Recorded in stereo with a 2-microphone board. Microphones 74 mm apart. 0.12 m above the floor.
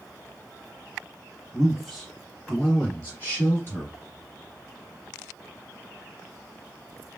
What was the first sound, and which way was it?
A man speaking, centre (ahead or behind).